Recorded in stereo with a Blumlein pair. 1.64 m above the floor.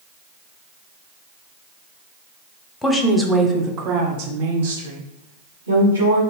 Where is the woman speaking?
15° left, 0.7 m; by 6.2 s 75° right, 1.8 m.